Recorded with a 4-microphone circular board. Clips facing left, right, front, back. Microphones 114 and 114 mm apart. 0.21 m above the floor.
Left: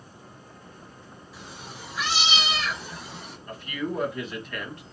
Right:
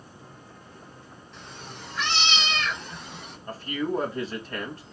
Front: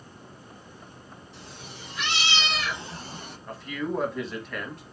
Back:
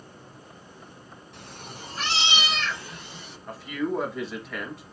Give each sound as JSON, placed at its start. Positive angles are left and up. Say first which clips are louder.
{"t": 1.3, "sound": "a cat meowing", "louder": "even, back 3 dB", "azimuth_deg": 175, "distance_m": 1.0}
{"t": 3.5, "sound": "a man speaking", "louder": "right 3 dB, back 2 dB", "azimuth_deg": -90, "distance_m": 1.2}